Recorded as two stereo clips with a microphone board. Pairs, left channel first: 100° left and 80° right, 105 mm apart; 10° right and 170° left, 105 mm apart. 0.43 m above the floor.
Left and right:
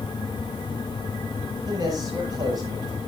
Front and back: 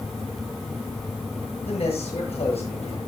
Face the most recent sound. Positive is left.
turn(degrees=-30)